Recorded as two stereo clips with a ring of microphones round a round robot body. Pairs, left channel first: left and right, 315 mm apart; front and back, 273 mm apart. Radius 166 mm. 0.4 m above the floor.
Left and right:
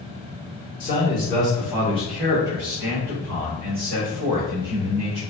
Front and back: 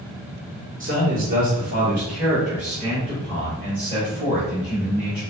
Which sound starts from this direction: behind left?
A man speaking, at 0.8 s.